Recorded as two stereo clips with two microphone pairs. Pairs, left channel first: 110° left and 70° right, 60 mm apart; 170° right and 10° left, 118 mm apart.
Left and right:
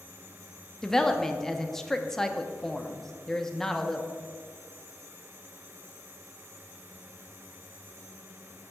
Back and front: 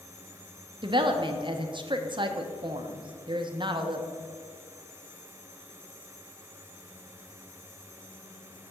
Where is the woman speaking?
30° left, 0.7 m.